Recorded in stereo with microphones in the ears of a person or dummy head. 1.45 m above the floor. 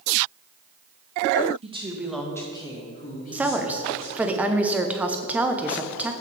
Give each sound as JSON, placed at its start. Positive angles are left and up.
{"t": 1.6, "sound": "a woman speaking", "side_deg": -35, "distance_m": 1.4}
{"t": 3.3, "sound": "a woman speaking", "side_deg": -10, "distance_m": 0.8}